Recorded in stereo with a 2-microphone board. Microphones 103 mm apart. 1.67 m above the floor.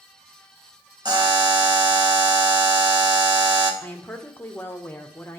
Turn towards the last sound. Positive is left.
turn(degrees=20)  # may be behind; listen again after turning